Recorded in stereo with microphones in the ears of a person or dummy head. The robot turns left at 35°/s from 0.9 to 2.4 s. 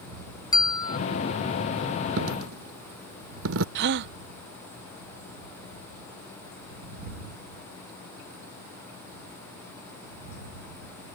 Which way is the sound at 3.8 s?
60° right (ahead or behind).